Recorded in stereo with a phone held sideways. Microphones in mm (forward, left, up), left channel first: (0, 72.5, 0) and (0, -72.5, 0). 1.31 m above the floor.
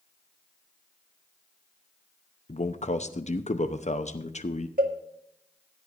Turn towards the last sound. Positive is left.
turn(degrees=-75)  # may be behind; listen again after turning